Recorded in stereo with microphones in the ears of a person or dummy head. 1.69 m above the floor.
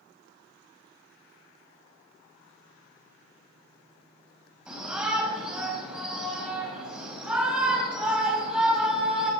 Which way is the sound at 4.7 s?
5° right (ahead or behind).